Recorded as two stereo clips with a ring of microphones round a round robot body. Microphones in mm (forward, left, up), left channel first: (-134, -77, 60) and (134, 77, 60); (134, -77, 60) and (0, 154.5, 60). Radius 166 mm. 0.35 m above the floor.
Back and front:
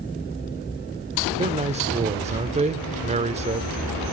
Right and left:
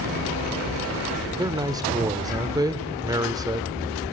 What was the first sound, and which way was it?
A man speaking, 65° left.